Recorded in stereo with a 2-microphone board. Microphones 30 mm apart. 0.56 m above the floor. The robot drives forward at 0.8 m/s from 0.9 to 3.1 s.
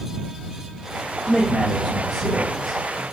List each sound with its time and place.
1.2 s a man speaking: 15° right (ahead or behind), 3 m; by 3.0 s 10° right (ahead or behind), 4.5 m